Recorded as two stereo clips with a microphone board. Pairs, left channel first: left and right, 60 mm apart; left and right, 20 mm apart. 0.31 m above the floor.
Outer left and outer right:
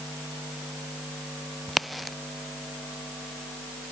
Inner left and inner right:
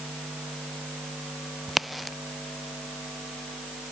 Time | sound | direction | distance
1.7 | a crack | centre (ahead or behind) | ?